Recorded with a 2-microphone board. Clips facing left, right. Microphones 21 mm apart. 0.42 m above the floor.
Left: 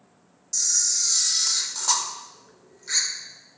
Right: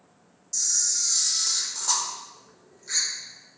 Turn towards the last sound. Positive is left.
turn(degrees=25)  # may be behind; listen again after turning